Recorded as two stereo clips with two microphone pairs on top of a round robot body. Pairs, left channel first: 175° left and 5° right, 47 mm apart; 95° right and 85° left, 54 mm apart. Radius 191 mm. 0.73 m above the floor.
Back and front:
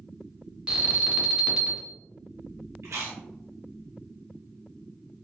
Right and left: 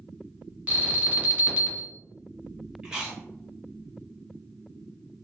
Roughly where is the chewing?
Ahead.